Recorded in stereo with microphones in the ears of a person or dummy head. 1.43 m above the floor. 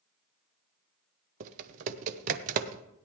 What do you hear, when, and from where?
1.4 s typing on a keyboard: 45° right (ahead or behind), 0.9 m